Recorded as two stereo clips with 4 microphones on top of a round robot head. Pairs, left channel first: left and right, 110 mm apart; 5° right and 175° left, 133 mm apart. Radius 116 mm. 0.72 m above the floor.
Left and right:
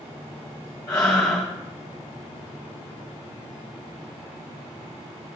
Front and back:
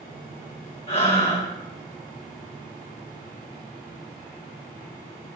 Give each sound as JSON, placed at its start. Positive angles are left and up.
{"t": 0.9, "sound": "breathing", "azimuth_deg": 35, "distance_m": 4.5}